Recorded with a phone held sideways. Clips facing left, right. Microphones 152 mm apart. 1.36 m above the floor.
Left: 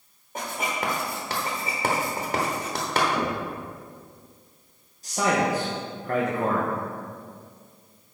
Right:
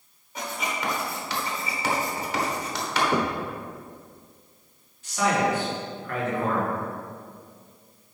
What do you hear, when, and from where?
0.3 s writing: 45° left (ahead or behind), 1.4 m
3.1 s knocking: 65° right (ahead or behind), 0.9 m
5.0 s a man speaking: 35° left (ahead or behind), 1.2 m